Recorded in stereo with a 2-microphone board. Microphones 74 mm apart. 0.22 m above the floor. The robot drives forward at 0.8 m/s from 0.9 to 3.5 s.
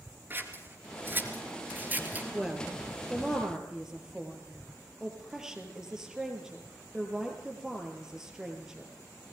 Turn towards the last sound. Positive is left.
turn(degrees=-10)  # may be behind; listen again after turning